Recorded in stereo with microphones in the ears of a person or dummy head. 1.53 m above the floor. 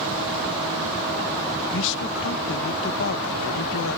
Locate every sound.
1.7 s a man speaking: 75° left (ahead or behind)